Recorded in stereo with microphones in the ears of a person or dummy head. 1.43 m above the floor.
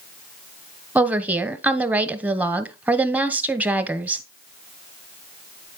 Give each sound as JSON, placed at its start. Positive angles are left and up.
{"t": 0.9, "sound": "a woman speaking", "side_deg": -10, "distance_m": 0.9}